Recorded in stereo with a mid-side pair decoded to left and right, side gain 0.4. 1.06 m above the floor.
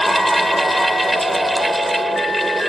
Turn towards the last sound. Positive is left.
turn(degrees=-10)